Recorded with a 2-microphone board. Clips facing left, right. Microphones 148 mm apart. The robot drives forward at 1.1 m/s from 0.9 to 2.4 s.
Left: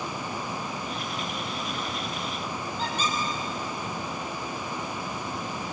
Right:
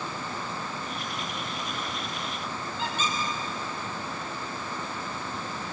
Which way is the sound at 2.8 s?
40° left (ahead or behind).